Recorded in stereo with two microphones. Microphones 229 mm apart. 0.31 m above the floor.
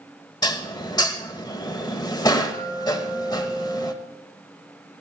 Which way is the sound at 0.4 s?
20° left (ahead or behind).